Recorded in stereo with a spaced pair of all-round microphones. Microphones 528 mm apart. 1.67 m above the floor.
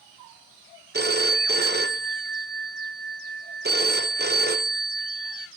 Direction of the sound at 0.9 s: 20° right (ahead or behind).